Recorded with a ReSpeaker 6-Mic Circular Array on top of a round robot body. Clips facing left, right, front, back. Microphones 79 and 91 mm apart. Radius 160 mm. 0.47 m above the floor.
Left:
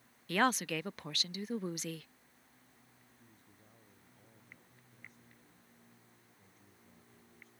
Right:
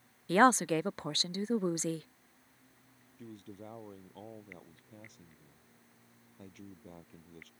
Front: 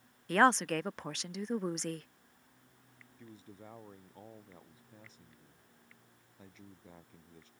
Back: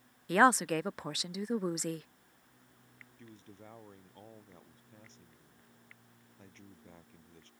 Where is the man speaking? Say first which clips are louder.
Right 19 dB, front 1 dB; 80° right.